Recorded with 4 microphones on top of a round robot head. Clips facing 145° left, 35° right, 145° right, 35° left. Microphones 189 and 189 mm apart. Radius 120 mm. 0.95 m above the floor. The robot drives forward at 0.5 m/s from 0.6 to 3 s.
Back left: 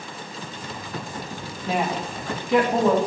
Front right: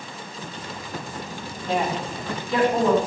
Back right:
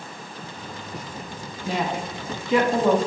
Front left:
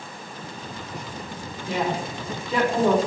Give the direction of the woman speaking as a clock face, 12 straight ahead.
4 o'clock.